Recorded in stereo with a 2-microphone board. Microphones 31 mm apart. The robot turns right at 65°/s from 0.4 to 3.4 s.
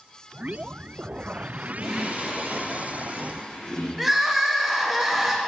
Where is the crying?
5° right (ahead or behind), 0.6 m.